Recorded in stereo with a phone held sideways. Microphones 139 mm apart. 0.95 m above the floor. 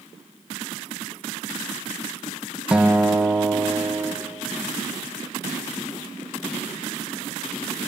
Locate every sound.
2.7 s a guitar: 5° right (ahead or behind), 0.8 m